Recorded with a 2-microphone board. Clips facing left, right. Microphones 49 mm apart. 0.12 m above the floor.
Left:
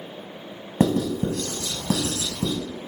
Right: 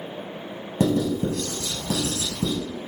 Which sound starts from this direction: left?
Writing, at 0.8 s.